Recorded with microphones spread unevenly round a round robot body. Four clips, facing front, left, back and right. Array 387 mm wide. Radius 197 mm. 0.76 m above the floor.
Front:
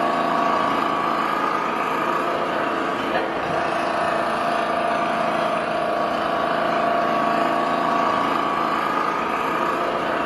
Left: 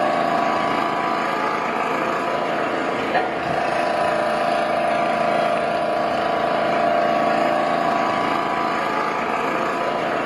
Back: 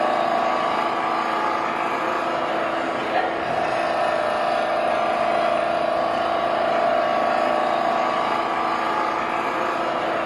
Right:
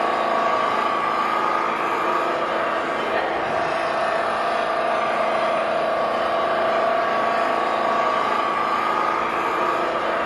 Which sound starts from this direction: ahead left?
An engine running, at 0.0 s.